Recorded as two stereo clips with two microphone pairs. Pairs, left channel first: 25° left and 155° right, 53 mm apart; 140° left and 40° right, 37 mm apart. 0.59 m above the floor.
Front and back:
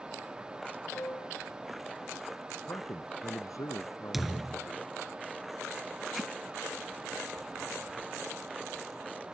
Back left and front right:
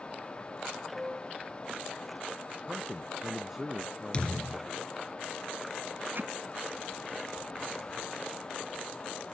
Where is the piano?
55° left.